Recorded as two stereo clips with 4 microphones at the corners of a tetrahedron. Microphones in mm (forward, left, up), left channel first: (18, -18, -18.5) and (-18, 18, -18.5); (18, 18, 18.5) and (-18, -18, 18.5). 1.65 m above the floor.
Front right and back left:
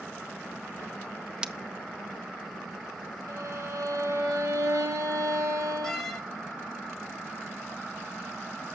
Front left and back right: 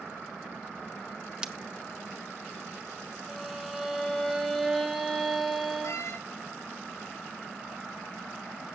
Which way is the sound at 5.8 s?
40° left.